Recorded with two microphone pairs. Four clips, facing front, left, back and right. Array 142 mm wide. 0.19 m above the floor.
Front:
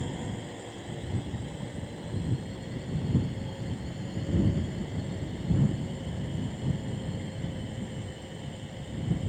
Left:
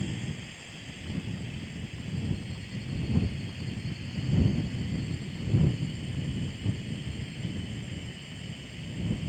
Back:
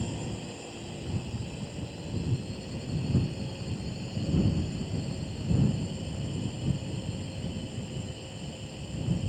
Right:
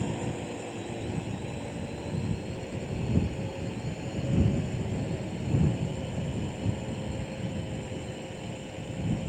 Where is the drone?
85° right.